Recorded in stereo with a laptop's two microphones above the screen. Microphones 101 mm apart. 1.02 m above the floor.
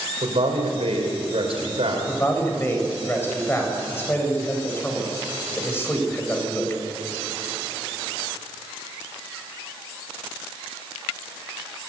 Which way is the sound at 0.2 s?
70° right (ahead or behind).